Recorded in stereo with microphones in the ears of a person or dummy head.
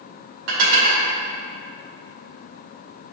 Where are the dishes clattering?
80° right, 2 m.